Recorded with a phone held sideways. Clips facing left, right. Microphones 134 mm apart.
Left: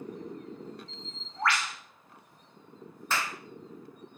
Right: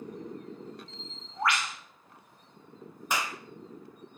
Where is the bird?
20° right (ahead or behind), 2 m.